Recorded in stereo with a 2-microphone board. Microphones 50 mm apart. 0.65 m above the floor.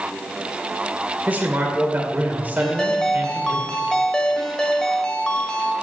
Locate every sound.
1.3 s a man speaking: 35° right (ahead or behind), 2 m
2.6 s a ringtone: 15° left (ahead or behind), 1.5 m